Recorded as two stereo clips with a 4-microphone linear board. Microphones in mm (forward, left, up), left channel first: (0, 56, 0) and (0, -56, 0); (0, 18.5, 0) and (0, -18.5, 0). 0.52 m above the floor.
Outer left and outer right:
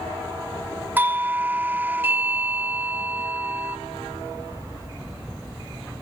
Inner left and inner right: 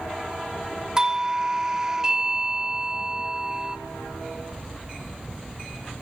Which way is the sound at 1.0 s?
20° right (ahead or behind).